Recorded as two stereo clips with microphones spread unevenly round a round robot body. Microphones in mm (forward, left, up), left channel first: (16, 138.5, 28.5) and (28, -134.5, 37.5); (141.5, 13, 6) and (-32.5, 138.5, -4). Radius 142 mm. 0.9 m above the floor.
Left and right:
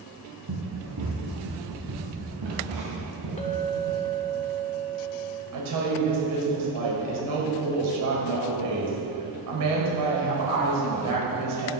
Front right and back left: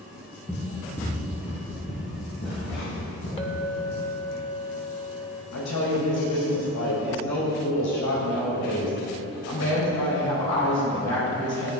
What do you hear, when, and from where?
0.5 s running footsteps: 120° right, 3 m; by 4.0 s 75° right, 5.5 m
3.4 s a clink: 25° left, 1.4 m
5.5 s a woman speaking: 70° right, 3.5 m